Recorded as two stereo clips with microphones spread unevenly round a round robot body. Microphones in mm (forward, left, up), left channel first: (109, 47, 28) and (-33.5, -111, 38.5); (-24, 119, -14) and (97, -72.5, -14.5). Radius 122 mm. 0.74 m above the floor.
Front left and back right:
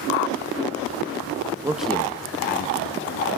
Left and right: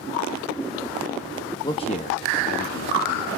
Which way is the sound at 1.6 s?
170° left.